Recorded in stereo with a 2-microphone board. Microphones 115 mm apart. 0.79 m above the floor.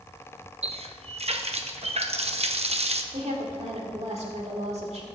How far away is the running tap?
About 0.6 m.